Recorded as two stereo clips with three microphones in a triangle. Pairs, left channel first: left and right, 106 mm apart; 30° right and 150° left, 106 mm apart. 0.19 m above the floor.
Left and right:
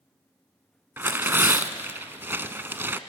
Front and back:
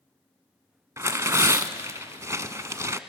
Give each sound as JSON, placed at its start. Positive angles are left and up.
{"t": 1.0, "sound": "tearing paper", "azimuth_deg": -155, "distance_m": 0.6}